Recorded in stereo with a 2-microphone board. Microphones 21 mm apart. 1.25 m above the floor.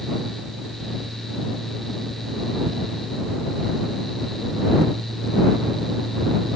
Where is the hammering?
No hammering in this recording.